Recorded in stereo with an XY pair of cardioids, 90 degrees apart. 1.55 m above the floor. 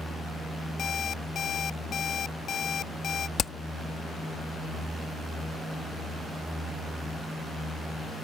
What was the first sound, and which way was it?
An alarm clock, 65° left.